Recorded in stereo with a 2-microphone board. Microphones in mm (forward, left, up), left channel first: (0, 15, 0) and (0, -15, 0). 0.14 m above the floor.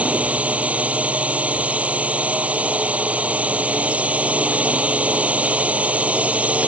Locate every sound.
0.0 s a drone: 55° right (ahead or behind)